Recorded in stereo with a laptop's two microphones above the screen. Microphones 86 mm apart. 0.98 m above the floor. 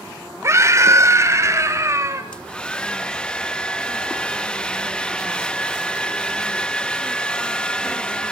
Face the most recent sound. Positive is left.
turn(degrees=10)  # may be behind; listen again after turning